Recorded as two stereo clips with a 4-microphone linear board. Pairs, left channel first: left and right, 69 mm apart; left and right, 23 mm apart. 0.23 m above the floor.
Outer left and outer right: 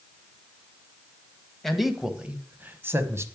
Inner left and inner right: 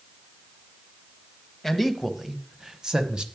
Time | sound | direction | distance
1.6 | a man speaking | 5° left (ahead or behind) | 1.0 m